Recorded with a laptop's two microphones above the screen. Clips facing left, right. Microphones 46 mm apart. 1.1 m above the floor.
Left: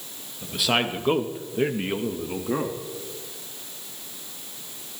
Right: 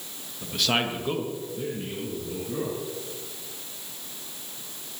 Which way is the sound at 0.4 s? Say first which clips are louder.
Left 2 dB; centre (ahead or behind).